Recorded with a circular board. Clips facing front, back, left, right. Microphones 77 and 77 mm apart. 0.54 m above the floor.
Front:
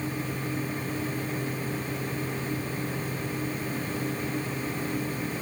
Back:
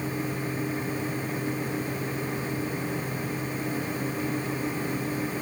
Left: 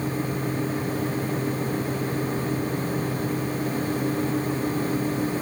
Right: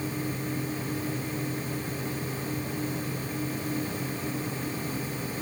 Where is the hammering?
No hammering in this recording.